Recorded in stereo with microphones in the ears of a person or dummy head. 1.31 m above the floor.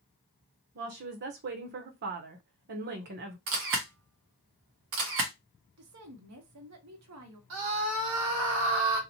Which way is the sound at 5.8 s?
80° right.